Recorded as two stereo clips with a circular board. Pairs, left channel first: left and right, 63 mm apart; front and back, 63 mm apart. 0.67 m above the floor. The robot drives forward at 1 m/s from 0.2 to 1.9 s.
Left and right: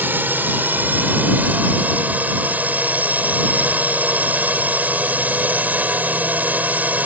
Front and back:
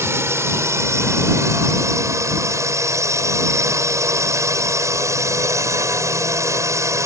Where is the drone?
145° right; by 7.1 s 150° right.